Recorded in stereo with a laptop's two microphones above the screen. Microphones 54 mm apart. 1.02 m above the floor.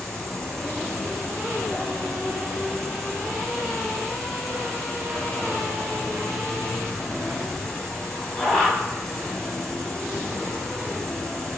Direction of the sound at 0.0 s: 10° left (ahead or behind).